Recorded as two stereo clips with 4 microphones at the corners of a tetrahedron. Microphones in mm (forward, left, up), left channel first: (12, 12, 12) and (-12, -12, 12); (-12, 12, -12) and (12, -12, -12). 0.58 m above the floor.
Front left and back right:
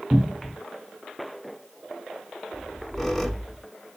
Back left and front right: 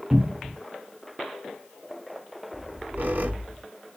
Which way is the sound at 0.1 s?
70° right.